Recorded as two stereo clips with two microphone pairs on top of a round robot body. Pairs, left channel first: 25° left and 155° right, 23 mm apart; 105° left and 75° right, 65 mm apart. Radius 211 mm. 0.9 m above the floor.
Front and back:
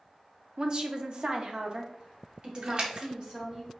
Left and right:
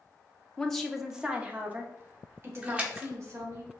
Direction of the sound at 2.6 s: 130° right.